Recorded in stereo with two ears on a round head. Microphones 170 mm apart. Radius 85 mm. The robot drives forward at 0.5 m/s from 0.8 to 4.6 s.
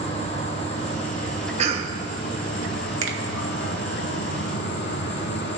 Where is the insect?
35° left (ahead or behind), 1.9 m; by 5.6 s 55° left (ahead or behind), 1.3 m.